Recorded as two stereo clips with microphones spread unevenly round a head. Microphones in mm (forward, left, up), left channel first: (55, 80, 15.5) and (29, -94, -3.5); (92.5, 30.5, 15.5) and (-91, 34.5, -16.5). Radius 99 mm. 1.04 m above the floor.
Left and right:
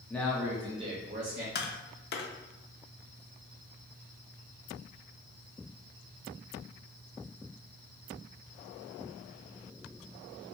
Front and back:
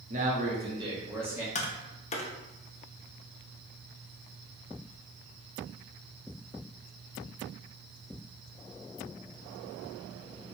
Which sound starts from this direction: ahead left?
Tapping, at 1.6 s.